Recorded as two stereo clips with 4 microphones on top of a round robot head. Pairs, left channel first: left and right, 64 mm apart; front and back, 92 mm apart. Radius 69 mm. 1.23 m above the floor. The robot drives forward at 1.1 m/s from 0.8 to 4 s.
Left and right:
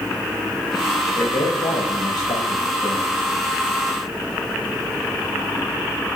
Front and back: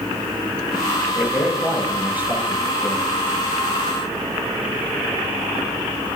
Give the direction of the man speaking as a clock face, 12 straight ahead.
9 o'clock.